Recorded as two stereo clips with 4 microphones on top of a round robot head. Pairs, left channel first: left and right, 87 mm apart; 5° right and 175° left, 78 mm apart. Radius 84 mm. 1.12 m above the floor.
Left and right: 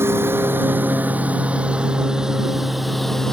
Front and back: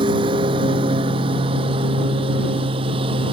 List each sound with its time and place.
0.0 s a lawn mower: 155° right; by 3.3 s 175° left